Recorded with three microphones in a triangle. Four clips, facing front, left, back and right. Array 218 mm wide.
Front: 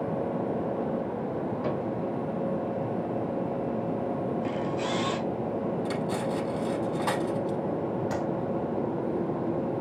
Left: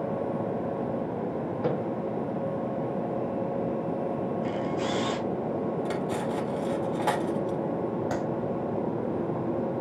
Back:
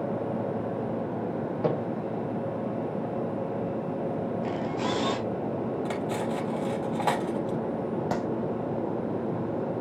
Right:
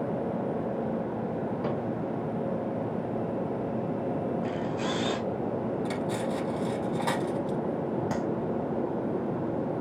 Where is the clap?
170° left, 3.5 m.